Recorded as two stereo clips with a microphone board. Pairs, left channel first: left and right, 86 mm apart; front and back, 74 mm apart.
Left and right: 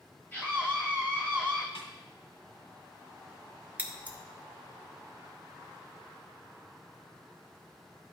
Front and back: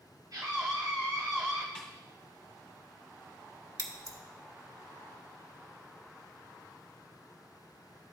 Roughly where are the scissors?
Behind right.